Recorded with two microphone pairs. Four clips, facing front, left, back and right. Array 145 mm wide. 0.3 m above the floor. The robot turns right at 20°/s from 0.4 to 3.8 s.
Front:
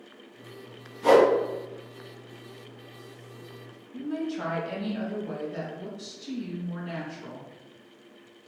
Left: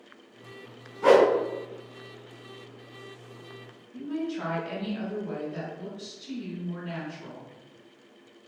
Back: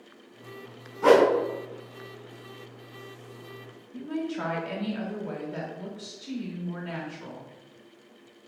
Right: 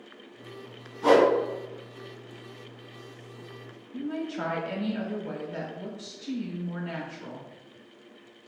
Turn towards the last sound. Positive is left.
turn(degrees=-135)